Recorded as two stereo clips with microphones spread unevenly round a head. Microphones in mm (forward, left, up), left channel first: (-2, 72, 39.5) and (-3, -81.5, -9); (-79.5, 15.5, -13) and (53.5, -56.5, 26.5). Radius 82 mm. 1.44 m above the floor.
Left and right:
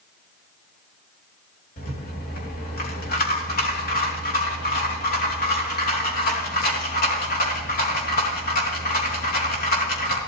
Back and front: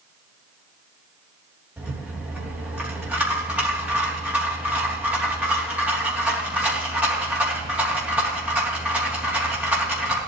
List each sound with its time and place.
1.8 s a rattle: 55° left, 3 m